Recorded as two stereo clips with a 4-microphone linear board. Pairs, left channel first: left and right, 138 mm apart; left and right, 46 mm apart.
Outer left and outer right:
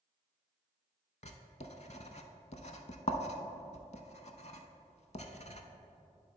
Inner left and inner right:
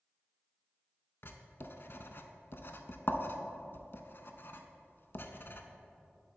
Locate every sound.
1.2 s writing: 55° left (ahead or behind), 0.5 m